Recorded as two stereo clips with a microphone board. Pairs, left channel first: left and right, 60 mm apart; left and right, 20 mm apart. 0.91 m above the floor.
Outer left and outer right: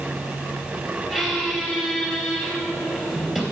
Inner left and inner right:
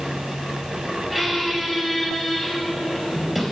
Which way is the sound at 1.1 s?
5° right (ahead or behind).